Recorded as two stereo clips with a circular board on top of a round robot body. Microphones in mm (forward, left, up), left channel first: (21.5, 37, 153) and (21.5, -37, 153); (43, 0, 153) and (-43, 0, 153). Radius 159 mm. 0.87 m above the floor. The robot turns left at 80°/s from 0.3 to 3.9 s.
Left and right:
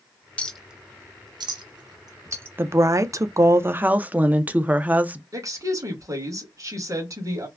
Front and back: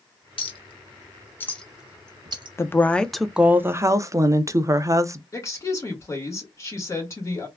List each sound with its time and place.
0.4 s a clink: 15° left, 0.8 m; by 2.5 s 155° right, 0.8 m
2.6 s a woman speaking: 45° right, 0.5 m; by 5.2 s 150° right, 0.5 m
5.3 s a woman speaking: 55° right, 2.0 m